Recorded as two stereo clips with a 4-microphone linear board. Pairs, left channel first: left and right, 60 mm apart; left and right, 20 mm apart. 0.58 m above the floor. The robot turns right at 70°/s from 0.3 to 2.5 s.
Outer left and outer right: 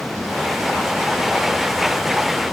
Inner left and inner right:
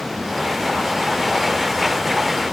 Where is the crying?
No crying in this recording.